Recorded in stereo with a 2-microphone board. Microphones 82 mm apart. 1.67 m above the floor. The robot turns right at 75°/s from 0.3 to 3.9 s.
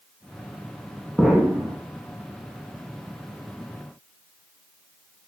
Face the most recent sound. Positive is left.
turn(degrees=20)